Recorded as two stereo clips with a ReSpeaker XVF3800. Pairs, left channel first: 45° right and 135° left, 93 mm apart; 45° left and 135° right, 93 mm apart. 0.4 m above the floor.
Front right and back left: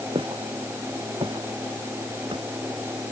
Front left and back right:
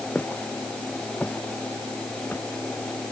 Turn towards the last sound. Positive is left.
turn(degrees=120)